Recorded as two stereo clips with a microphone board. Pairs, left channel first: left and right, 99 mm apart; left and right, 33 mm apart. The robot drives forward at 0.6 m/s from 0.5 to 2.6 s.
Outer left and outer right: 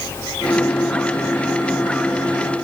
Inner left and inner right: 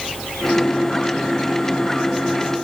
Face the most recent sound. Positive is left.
No sound to turn to.